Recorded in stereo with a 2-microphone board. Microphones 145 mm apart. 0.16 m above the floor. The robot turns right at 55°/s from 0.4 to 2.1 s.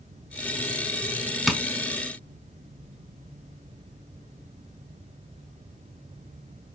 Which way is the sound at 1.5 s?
Centre (ahead or behind).